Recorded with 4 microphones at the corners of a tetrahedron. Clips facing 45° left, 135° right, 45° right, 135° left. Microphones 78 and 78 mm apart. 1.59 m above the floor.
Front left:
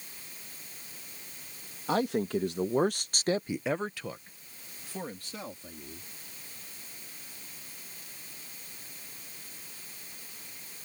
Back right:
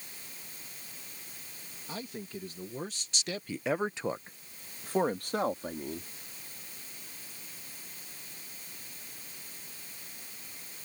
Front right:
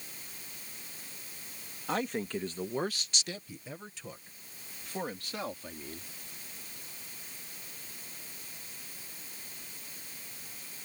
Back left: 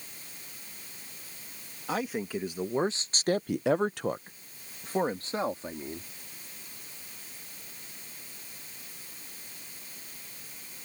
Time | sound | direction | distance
1.9 | a man speaking | 45° left | ?